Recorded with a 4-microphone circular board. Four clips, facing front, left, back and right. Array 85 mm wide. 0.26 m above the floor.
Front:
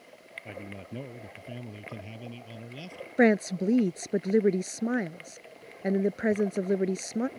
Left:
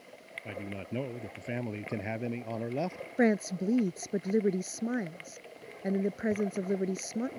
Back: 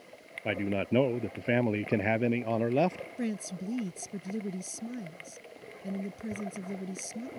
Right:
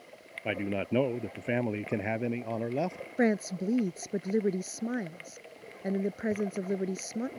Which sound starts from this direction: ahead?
A woman speaking, at 3.2 s.